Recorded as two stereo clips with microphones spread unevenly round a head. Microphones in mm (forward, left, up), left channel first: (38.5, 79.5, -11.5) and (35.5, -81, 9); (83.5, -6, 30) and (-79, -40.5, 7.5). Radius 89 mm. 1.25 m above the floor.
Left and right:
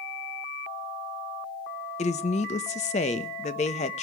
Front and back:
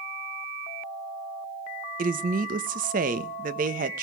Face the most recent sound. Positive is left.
turn(degrees=145)